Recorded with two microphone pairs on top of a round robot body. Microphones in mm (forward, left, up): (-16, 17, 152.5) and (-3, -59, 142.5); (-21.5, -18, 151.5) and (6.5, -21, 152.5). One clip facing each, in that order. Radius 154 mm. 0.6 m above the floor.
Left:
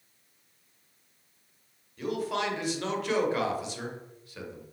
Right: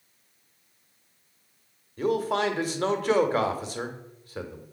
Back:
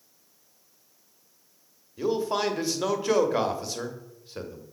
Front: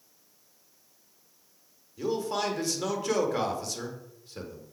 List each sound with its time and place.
2.0 s a man speaking: 120° right, 1.3 m